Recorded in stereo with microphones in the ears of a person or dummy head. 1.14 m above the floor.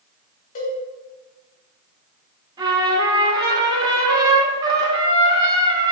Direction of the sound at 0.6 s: 45° left (ahead or behind).